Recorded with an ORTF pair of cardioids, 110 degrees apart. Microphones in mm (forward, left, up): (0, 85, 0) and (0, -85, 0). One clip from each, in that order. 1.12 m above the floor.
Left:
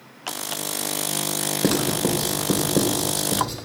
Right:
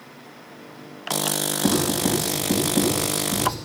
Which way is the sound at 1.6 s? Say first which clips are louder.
Even; 65° left.